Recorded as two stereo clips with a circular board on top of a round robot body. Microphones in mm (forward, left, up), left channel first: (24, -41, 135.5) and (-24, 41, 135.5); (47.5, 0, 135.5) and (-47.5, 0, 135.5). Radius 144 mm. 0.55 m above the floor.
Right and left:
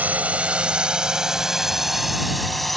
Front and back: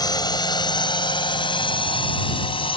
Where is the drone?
45° left; by 2.8 s 30° left.